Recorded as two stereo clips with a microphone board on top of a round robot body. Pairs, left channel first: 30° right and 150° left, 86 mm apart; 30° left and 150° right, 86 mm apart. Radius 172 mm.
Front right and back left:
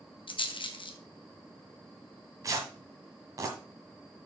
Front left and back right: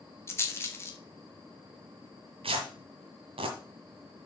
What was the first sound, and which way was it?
A rattle, 30° right.